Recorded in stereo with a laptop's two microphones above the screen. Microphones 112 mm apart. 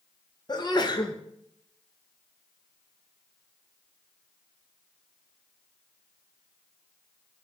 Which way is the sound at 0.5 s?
40° left (ahead or behind).